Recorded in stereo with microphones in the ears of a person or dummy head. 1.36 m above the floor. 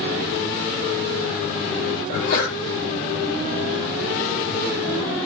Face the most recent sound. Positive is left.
turn(degrees=55)  # may be behind; listen again after turning